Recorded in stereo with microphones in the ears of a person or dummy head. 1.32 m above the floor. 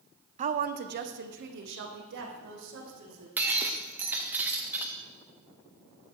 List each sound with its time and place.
0.4 s a woman speaking: 35° right (ahead or behind), 0.6 m; by 3.3 s 70° right (ahead or behind), 3 m
3.4 s breaking glass: 10° right (ahead or behind), 0.7 m